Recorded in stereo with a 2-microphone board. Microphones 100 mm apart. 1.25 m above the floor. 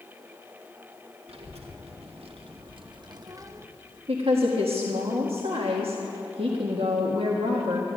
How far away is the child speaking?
About 1.8 m.